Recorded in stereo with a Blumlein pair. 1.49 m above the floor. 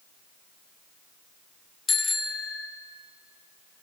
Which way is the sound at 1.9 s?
15° left.